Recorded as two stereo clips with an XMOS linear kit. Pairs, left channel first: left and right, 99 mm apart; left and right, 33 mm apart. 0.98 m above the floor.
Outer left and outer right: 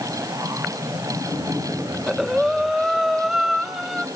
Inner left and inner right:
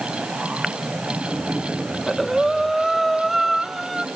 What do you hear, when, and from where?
1.9 s breathing: 5° right (ahead or behind), 1.1 m